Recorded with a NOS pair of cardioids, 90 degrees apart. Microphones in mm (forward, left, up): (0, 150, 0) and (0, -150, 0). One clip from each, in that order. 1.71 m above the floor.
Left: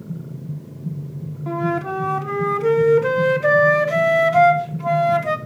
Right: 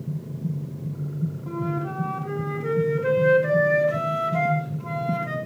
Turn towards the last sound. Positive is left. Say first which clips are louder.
# left 8 dB
turn(degrees=70)